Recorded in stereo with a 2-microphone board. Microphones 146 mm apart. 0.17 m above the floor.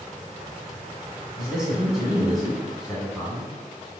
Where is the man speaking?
5° right (ahead or behind), 1.2 m.